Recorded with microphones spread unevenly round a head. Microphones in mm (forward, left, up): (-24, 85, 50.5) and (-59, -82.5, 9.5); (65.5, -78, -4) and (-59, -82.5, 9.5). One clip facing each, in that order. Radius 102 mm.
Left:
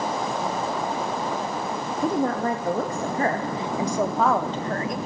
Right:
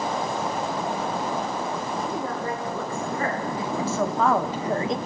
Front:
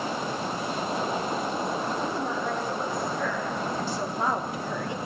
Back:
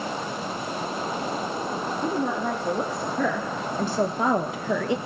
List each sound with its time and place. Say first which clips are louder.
2.0 s a woman speaking: left 6 dB, back 3 dB; 115° left, 3 m; by 5.0 s 165° right, 1.6 m